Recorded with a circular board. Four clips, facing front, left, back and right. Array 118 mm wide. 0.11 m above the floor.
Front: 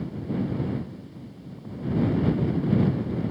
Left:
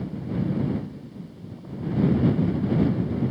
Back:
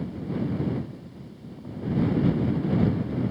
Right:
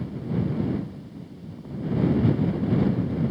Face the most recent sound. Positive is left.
No sound to turn to.